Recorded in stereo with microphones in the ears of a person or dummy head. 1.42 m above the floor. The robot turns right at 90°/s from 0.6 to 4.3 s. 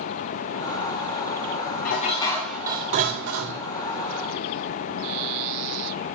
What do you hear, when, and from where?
1.9 s dishes clattering: 120° left, 1.7 m; by 3.6 s 80° right, 1.7 m